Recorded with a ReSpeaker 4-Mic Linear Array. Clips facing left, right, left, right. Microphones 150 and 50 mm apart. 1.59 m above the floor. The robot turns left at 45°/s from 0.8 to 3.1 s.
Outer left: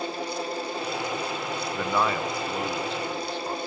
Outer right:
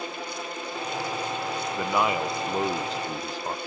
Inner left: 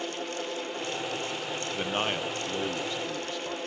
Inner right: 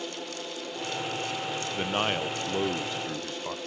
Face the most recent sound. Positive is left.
turn(degrees=-70)